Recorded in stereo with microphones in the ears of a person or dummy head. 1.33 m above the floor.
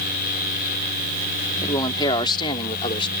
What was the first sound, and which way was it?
A man speaking, 30° left (ahead or behind).